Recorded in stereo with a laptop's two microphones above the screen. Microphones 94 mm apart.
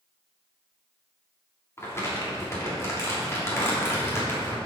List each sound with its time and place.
1.8 s crumpling: 30° left (ahead or behind), 3 m